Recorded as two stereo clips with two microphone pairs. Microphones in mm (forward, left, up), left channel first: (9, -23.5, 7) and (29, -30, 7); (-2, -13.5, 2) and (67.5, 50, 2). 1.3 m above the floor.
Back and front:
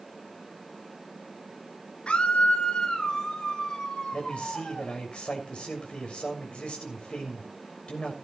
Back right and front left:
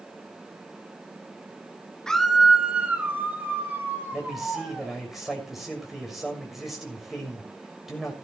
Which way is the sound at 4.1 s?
130° left.